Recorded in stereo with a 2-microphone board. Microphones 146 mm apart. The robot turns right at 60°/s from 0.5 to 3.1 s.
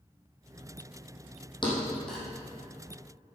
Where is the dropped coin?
I don't hear a dropped coin.